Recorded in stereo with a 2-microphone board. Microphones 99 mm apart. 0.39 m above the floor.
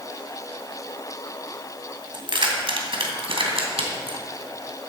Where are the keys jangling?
55° right (ahead or behind), 1.8 m; by 4.2 s 75° right (ahead or behind), 2 m.